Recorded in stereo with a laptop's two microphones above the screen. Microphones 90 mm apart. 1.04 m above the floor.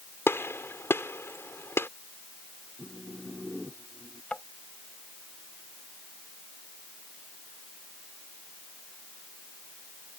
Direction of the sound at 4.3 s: 10° left (ahead or behind).